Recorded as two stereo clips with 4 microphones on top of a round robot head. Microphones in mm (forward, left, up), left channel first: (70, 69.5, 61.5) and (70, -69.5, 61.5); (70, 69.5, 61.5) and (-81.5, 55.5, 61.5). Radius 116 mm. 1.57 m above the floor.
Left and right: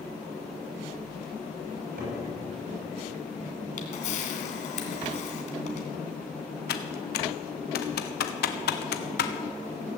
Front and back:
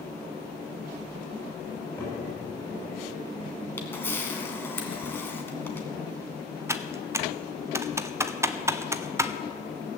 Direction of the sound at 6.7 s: 115° left.